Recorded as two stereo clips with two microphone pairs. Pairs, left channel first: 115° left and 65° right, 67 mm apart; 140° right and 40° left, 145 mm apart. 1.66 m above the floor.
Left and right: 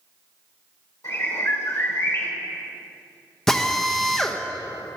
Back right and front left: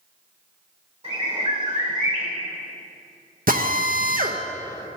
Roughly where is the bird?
Left.